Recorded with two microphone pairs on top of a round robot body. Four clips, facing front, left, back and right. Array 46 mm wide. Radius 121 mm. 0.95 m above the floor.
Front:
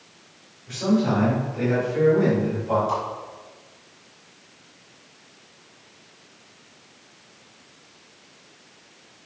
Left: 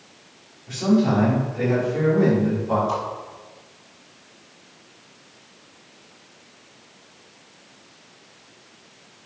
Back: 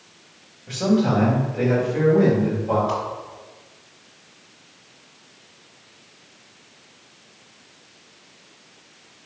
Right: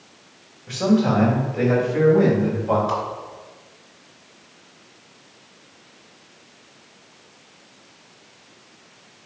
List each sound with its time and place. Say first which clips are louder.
0.7 s a man speaking: right 1 dB, back 2 dB; 110° right, 4 m; by 2.8 s 105° right, 5.5 m
2.9 s a whoosh: right 1 dB, even; 120° right, 2.5 m